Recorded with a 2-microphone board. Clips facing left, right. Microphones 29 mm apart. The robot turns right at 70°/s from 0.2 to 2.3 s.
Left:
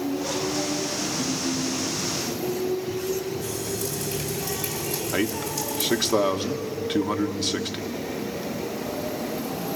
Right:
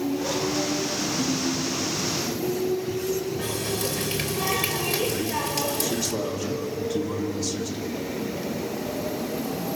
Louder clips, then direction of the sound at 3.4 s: Right 2 dB; 90° right.